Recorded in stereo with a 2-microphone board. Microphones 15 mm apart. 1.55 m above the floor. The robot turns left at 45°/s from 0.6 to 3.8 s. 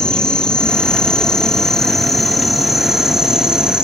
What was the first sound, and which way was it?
An insect, 90° left.